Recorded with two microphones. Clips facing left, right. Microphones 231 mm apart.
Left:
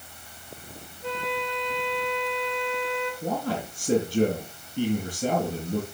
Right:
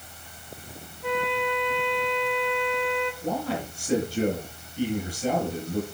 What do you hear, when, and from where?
1.0 s a flute: 20° left (ahead or behind), 3 m
3.2 s a man speaking: 50° left (ahead or behind), 8 m